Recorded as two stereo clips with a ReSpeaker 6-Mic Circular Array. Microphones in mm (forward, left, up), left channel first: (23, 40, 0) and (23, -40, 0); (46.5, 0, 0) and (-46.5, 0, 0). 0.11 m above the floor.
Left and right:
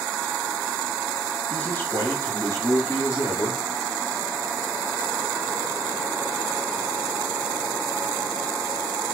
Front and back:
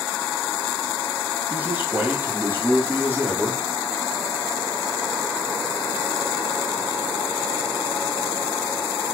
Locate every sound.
1.5 s a man speaking: 135° left, 1.1 m; by 3.6 s 120° left, 2.0 m